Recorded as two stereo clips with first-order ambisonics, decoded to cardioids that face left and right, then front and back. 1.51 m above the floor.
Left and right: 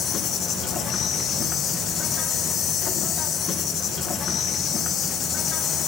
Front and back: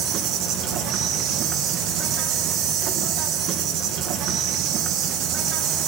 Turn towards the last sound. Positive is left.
turn(degrees=145)